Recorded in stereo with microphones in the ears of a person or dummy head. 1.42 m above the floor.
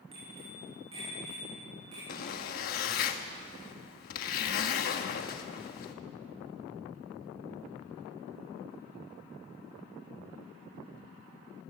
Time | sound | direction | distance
0.1 | a bicycle bell | 35° right (ahead or behind) | 7.5 m
2.1 | a zipper | 50° left (ahead or behind) | 1.3 m